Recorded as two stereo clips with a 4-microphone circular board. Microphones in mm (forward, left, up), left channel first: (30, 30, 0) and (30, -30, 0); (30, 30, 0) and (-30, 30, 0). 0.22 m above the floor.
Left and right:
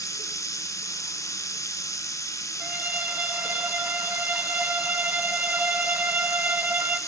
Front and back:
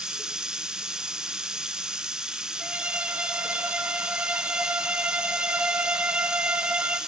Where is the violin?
125° right, 1.6 m.